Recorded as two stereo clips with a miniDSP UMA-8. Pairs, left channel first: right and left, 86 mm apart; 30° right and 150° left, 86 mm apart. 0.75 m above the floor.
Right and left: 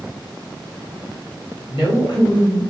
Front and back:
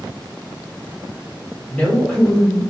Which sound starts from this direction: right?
A woman speaking, at 1.7 s.